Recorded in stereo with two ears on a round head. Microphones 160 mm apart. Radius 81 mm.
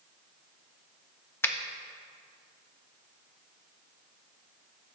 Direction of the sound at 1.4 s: 15° left (ahead or behind).